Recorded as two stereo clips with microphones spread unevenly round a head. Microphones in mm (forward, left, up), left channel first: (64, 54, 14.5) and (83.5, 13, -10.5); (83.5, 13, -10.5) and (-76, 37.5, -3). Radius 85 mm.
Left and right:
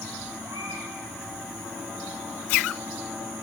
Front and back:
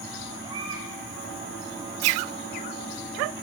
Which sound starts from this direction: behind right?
A baby crying, at 0.4 s.